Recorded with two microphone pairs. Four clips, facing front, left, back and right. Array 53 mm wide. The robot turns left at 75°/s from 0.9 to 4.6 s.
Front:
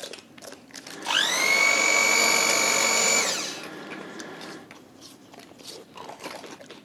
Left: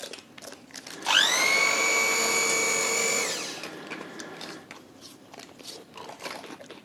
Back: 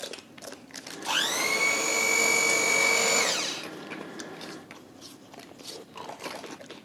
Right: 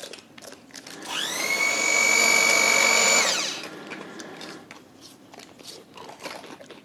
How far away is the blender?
About 2.5 m.